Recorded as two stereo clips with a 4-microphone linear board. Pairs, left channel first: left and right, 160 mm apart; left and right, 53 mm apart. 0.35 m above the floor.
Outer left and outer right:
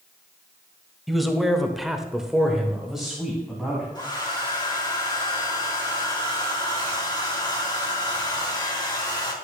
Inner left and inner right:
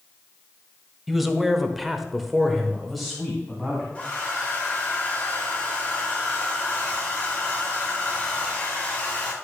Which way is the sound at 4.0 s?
25° left (ahead or behind).